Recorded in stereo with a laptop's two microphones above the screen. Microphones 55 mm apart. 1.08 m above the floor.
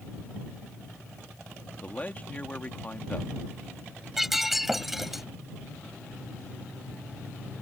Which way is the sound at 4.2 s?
5° right (ahead or behind).